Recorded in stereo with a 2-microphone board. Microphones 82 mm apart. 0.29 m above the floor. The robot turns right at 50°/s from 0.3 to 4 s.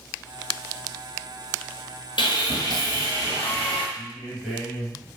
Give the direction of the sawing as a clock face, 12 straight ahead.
9 o'clock.